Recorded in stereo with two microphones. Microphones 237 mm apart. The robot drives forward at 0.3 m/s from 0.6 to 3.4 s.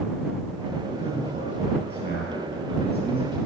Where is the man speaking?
50° right (ahead or behind), 2 m; by 3.4 s 40° right (ahead or behind), 2.5 m.